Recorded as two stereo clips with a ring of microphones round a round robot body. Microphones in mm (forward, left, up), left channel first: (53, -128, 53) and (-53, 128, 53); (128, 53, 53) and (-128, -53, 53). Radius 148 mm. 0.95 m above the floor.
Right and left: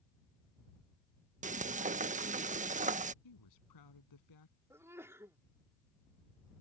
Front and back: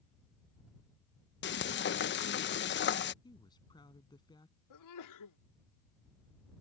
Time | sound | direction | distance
1.4 | frying | 55° left | ?
3.2 | a woman speaking | 55° right | ?
4.7 | a sneeze | 30° left | ?